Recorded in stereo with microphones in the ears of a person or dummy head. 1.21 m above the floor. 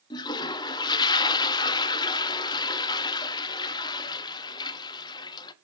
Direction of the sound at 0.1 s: 25° left (ahead or behind).